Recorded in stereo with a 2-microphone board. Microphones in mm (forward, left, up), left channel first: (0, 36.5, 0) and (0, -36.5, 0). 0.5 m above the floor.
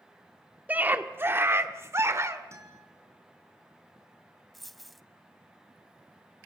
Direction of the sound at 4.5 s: Centre (ahead or behind).